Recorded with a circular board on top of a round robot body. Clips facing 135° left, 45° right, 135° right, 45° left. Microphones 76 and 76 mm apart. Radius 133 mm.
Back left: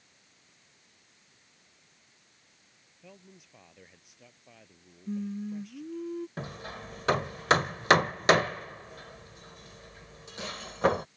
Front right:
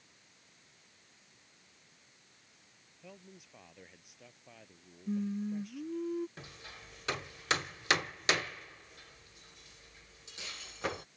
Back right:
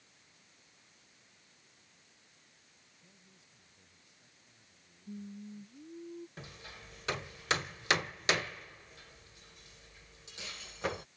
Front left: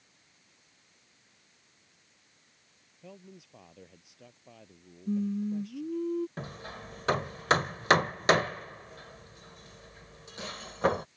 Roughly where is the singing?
Ahead left.